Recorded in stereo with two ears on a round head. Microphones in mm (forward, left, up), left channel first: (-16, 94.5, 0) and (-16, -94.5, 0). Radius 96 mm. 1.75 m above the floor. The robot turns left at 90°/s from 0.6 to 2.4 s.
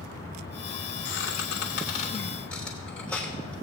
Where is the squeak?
50° left (ahead or behind), 3 m; by 3.5 s 5° left (ahead or behind), 3 m.